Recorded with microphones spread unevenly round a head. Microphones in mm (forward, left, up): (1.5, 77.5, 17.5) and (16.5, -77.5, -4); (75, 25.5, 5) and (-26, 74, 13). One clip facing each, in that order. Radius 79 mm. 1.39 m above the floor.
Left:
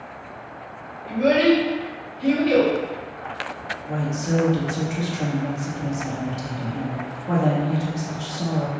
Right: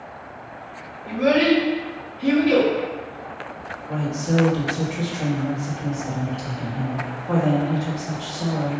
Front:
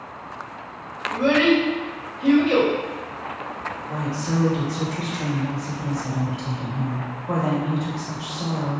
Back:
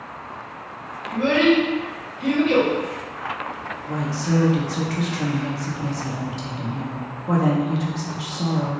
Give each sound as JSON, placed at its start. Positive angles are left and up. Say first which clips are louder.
{"t": 1.1, "sound": "a child speaking", "louder": "left 1 dB, even", "azimuth_deg": -175, "distance_m": 1.8}
{"t": 3.9, "sound": "a woman speaking", "louder": "right 1 dB, back 3 dB", "azimuth_deg": 150, "distance_m": 0.9}